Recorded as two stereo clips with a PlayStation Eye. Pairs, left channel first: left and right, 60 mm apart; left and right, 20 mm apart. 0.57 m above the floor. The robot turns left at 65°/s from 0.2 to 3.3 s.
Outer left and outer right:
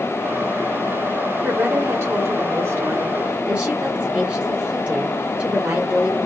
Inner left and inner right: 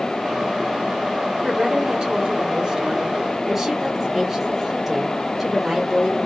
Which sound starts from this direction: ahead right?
A woman speaking, at 1.4 s.